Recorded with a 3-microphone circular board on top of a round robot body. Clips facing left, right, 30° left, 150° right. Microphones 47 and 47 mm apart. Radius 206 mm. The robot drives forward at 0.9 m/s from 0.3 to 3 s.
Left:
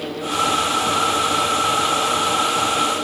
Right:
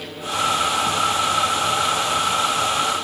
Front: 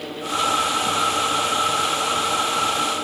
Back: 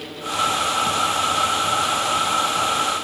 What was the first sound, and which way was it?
Only background noise.